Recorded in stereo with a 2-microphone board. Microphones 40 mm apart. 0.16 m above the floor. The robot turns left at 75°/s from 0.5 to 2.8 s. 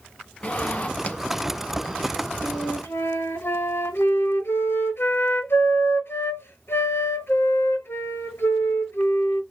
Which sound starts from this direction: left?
A flute, at 2.4 s.